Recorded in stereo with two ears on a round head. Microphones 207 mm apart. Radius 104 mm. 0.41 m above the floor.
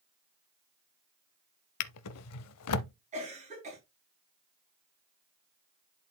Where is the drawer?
75° left (ahead or behind), 0.5 m.